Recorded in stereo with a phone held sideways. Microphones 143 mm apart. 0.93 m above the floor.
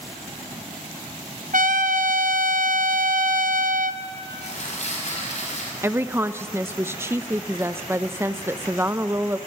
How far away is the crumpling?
About 5.5 m.